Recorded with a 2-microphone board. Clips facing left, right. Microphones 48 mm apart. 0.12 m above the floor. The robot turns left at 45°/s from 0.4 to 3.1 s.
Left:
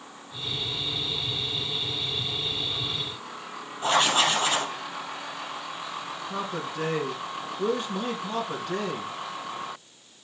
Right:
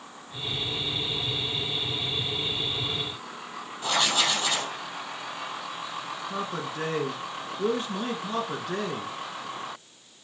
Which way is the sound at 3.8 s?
30° left (ahead or behind).